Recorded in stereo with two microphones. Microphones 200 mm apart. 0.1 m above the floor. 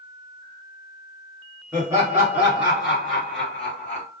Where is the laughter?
20° right (ahead or behind), 1.7 m; by 4.0 s 10° left (ahead or behind), 2 m.